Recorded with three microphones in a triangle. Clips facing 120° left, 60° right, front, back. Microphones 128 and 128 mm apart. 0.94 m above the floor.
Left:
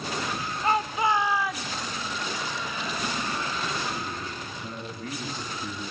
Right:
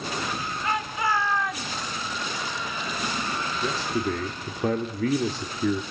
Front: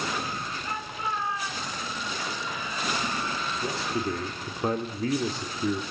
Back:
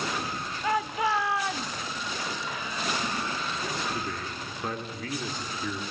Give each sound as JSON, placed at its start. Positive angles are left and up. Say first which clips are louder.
{"t": 0.6, "sound": "a shout", "louder": "left 3 dB, back 10 dB", "azimuth_deg": 175, "distance_m": 1.5}
{"t": 3.6, "sound": "a man speaking", "louder": "right 5 dB, front 5 dB", "azimuth_deg": -60, "distance_m": 2.0}